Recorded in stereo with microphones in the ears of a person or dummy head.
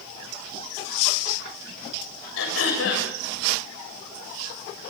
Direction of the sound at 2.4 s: 85° left.